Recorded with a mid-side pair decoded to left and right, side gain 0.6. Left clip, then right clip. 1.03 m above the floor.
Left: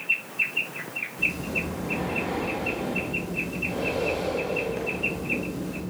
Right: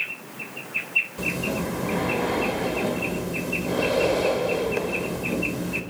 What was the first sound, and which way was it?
Breathing, 45° right.